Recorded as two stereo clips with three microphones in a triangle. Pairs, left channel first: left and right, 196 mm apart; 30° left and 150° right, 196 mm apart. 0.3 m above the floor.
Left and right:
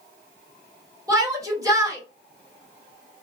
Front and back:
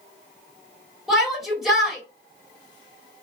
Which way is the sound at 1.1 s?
65° right.